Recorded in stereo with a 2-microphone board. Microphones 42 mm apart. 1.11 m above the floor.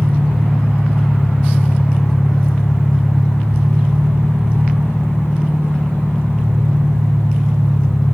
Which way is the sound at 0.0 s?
75° left (ahead or behind).